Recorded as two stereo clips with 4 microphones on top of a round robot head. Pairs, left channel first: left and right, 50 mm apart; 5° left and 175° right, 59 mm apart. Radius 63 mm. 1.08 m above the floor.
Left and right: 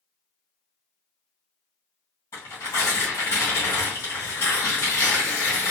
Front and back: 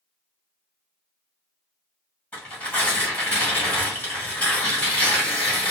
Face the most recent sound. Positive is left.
turn(degrees=70)